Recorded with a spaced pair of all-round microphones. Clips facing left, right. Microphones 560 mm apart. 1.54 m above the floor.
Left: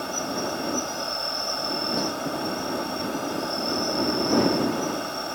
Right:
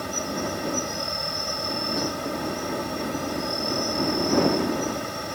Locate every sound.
0.0 s an insect: 45° right (ahead or behind)